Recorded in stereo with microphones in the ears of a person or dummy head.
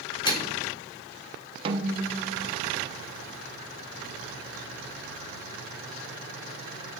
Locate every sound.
0.2 s a microwave: 30° left (ahead or behind), 0.7 m
1.6 s a snare drum: 35° right (ahead or behind), 0.6 m